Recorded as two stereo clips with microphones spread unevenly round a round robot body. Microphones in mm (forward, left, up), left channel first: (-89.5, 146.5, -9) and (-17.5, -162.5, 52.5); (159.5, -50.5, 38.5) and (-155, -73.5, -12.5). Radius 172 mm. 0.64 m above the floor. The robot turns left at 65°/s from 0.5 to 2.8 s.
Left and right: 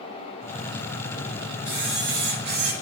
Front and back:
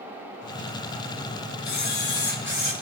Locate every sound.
1.6 s a camera shutter: 5° left, 2 m; by 2.7 s 65° right, 2 m